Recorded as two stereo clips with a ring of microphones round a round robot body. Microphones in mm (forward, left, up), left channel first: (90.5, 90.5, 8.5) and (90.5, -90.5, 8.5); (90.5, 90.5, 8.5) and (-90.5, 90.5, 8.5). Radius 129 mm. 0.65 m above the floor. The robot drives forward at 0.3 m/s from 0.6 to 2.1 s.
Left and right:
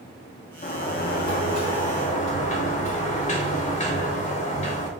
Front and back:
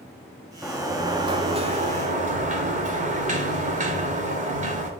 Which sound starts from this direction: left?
A sliding door, at 0.6 s.